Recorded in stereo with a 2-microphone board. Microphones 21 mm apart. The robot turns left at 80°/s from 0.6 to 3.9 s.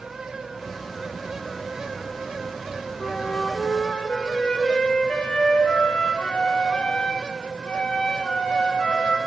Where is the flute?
135° left, 3.5 m; by 9.2 s 65° left, 3.5 m.